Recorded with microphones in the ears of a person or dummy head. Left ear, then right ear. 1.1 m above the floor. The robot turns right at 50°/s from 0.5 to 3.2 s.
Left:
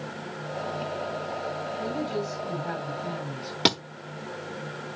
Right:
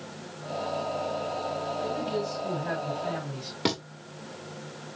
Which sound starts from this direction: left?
A thud, at 3.6 s.